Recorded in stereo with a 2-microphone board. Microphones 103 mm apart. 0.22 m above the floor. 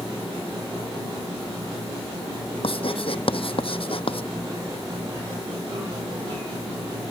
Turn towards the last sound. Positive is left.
turn(degrees=60)  # may be behind; listen again after turning